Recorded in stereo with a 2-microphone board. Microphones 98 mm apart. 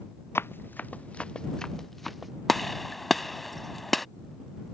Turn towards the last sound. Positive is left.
turn(degrees=0)  # may be behind; listen again after turning